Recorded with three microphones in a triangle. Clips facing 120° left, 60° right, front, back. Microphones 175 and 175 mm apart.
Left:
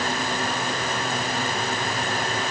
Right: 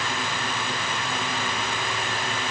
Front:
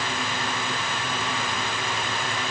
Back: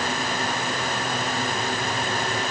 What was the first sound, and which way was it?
Only background noise.